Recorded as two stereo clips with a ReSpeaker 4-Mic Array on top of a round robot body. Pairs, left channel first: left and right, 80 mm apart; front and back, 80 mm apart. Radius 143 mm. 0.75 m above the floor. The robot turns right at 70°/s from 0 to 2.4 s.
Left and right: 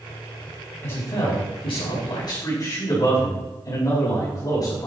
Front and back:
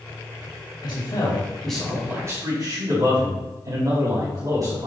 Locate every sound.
0.8 s a man speaking: 30° left, 4.5 m; by 4.9 s 140° left, 4.5 m